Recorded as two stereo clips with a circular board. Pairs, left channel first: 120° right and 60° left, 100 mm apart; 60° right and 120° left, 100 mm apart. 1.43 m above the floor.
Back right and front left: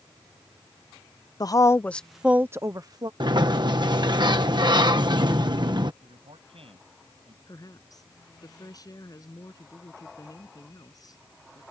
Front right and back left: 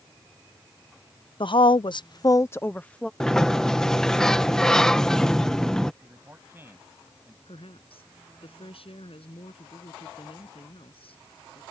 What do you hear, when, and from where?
1.4 s a woman speaking: 80° right; by 3.1 s 20° left
3.2 s a sliding door: 25° left
6.0 s a man speaking: 55° left
7.5 s a woman speaking: 70° right